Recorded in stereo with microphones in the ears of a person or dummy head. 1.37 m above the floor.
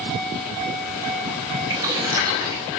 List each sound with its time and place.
1.7 s boiling: 20° right (ahead or behind), 3.5 m